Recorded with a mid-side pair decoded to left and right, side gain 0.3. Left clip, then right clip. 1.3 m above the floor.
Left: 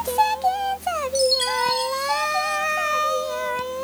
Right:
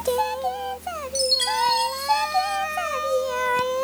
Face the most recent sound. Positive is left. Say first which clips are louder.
# even
turn(degrees=-15)